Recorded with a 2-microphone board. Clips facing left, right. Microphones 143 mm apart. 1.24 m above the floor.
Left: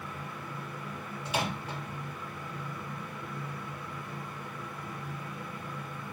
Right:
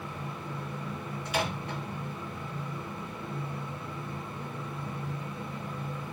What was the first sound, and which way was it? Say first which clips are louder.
A microwave: right 1 dB; 25° left (ahead or behind).